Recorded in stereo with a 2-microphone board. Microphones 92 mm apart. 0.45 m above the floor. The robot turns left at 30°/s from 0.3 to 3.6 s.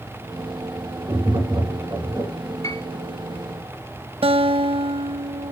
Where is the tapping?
100° right, 4.5 m; by 2.3 s 135° right, 4.5 m.